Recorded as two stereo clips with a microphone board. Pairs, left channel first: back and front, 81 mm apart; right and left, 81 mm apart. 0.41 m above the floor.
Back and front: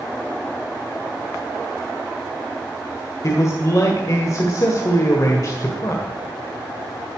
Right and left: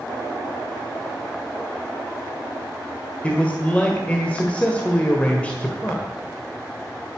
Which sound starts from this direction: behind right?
A man speaking, at 3.2 s.